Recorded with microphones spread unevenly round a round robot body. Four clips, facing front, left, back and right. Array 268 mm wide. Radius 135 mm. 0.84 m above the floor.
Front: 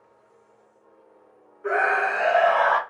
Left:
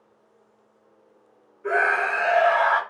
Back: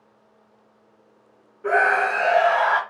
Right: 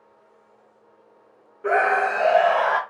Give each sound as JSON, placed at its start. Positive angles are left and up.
{"t": 1.6, "sound": "a scream", "azimuth_deg": -110, "distance_m": 0.9}